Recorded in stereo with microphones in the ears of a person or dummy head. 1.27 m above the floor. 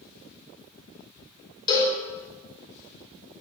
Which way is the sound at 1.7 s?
25° left (ahead or behind).